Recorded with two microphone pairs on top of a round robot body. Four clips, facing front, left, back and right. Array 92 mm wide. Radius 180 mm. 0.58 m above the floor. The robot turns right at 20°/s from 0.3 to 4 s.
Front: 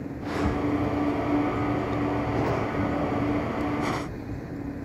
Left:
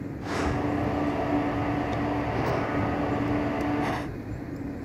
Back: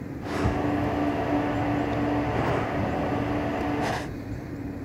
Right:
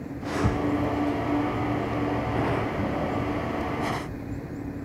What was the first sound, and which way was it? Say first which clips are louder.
A thud: right 2 dB, even; 120° right.